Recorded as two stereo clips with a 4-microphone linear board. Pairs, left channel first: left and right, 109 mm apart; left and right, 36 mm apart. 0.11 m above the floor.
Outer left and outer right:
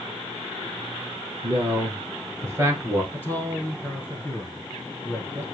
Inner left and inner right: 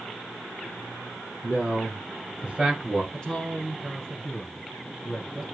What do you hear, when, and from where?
1.4 s a man speaking: 15° right (ahead or behind), 3 m; by 3.0 s 30° right (ahead or behind), 1.7 m
3.1 s a man speaking: 20° left (ahead or behind), 1.2 m